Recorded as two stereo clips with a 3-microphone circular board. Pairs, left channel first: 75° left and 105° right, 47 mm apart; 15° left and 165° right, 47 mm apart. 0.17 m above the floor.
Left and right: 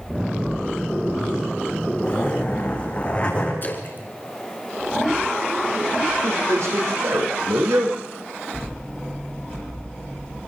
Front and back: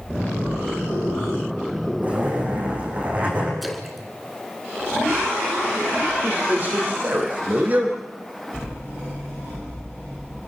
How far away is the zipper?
About 6.5 m.